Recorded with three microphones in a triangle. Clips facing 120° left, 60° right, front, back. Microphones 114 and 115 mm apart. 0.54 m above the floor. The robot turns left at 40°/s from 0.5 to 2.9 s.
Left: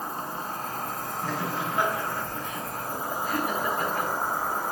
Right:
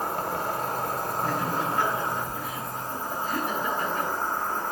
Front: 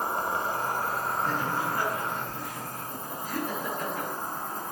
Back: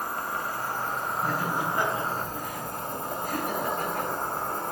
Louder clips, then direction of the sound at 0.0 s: Right 5 dB, front 3 dB; 65° right.